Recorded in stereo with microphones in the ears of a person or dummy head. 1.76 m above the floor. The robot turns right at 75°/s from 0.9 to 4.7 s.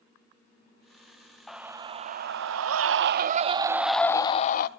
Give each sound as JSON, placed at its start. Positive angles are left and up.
{"t": 1.5, "sound": "a scream", "azimuth_deg": 175, "distance_m": 0.8}